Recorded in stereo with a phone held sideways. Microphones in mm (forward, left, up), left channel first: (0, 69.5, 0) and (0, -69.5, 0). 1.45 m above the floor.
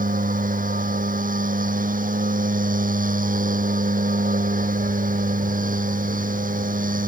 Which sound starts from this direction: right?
A machine running, at 0.0 s.